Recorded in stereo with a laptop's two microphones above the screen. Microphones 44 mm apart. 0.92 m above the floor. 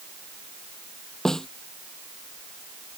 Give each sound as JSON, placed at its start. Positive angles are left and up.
{"t": 1.2, "sound": "a snare drum", "side_deg": 10}